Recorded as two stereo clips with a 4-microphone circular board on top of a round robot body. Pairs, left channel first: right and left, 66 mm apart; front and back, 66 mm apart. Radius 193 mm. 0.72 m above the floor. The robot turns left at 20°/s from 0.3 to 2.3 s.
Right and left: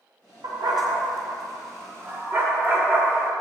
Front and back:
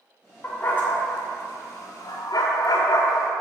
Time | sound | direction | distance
0.4 | a dog barking | 70° left | 1.0 m